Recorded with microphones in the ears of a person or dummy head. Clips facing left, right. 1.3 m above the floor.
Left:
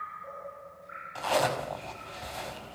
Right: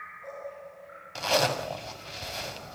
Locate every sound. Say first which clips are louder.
1.1 s a zipper: right 1 dB; 35° right (ahead or behind), 5 m